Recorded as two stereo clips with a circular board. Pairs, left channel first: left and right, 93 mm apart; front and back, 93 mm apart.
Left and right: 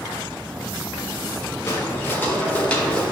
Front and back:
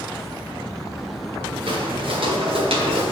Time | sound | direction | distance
1.7 | footsteps | 150° left | 2 m